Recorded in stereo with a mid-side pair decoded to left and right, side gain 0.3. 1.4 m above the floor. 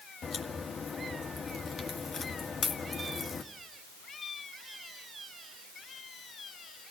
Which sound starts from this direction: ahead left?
A crack, at 0.2 s.